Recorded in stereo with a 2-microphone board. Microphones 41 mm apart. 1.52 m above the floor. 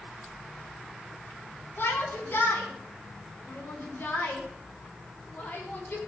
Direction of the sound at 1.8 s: 50° left (ahead or behind).